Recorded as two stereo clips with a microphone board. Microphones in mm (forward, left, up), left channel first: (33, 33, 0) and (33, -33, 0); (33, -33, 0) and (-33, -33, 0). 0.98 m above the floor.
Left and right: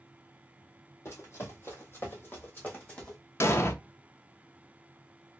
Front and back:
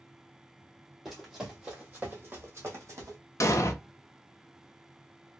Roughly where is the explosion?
Ahead left.